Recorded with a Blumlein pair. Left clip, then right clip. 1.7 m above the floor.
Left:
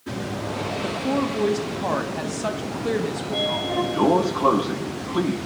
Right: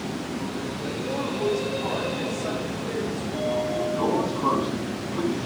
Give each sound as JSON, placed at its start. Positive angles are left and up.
{"t": 0.8, "sound": "a woman speaking", "azimuth_deg": 35, "distance_m": 1.7}
{"t": 3.2, "sound": "a sliding door", "azimuth_deg": 30, "distance_m": 1.0}